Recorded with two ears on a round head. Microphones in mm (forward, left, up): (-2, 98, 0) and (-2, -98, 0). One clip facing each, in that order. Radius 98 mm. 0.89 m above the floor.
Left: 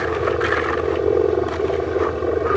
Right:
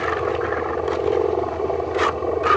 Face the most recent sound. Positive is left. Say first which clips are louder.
# left 2 dB
turn(degrees=20)  # may be behind; listen again after turning